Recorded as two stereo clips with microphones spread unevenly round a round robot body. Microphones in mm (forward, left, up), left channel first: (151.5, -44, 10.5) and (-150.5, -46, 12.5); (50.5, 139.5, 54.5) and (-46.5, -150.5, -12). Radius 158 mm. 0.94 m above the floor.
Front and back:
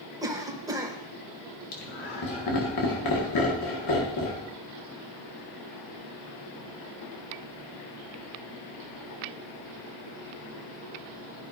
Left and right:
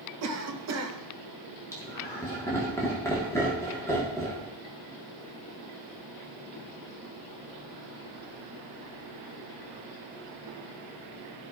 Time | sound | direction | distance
0.2 | a cough | 100° right | 1.3 m
1.7 | laughter | 10° right | 1.9 m